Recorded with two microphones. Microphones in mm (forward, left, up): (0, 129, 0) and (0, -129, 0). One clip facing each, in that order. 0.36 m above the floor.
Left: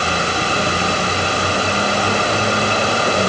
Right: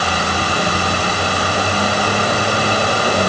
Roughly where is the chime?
I don't hear a chime.